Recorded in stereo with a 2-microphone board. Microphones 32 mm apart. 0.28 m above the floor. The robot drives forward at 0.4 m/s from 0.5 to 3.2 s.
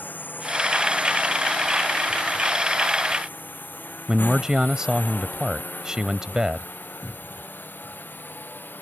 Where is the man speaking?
25° right (ahead or behind).